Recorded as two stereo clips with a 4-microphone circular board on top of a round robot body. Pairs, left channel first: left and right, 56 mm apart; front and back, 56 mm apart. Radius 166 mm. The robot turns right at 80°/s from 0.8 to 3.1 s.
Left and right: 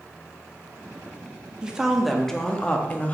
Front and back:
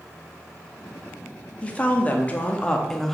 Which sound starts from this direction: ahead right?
A woman speaking, at 1.6 s.